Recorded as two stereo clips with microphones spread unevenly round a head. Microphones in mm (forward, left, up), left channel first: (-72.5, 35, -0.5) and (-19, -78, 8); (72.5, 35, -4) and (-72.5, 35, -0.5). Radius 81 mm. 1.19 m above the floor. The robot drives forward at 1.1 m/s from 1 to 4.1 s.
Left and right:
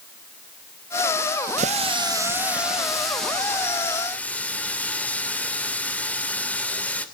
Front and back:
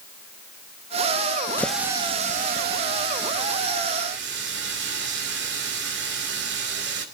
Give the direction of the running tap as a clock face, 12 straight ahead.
3 o'clock.